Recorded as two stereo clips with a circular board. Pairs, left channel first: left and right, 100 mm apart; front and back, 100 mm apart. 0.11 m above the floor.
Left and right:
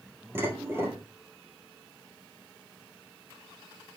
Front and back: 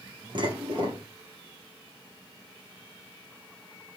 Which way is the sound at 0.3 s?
155° right.